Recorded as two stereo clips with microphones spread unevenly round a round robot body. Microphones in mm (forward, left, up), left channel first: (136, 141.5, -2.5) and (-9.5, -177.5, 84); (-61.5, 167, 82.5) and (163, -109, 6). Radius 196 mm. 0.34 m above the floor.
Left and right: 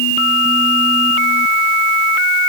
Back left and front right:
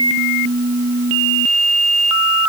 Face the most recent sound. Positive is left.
No sound to turn to.